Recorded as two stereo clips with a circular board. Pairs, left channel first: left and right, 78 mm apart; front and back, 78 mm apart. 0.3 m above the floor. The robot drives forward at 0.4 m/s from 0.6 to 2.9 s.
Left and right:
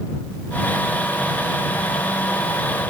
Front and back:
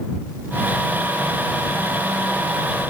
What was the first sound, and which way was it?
Only background noise.